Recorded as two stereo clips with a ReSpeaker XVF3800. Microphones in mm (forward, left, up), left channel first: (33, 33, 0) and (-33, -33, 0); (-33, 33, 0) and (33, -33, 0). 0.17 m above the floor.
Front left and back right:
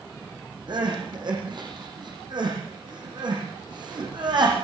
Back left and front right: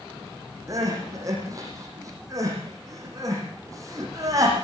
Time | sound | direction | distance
0.7 | crying | 100° right | 8.5 m